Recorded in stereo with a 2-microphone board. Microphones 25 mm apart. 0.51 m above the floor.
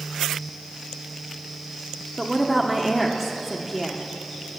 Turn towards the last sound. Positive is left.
turn(degrees=-5)  # may be behind; listen again after turning